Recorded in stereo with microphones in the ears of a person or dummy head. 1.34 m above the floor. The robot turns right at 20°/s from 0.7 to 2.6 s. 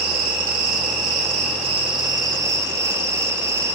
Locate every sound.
0.0 s an insect: 60° right, 3 m; by 3.8 s 25° right, 3 m